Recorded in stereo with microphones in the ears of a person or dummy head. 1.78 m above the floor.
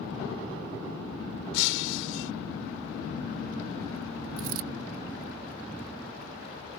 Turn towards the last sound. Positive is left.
turn(degrees=-50)  # may be behind; listen again after turning